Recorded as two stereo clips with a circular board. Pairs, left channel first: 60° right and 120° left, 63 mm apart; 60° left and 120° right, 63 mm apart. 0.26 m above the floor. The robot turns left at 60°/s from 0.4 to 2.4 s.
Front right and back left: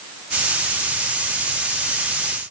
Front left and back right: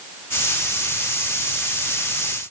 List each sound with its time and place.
Only background noise.